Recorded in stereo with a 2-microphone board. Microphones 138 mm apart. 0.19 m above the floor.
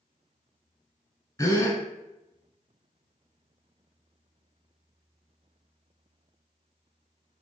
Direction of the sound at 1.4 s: 25° left (ahead or behind).